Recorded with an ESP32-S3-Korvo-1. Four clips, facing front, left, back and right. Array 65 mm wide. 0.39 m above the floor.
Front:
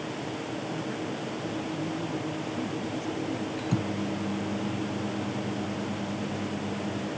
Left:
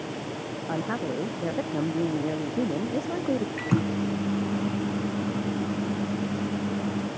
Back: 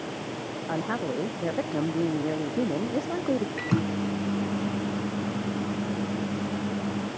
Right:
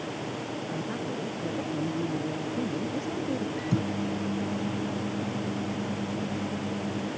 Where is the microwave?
130° left.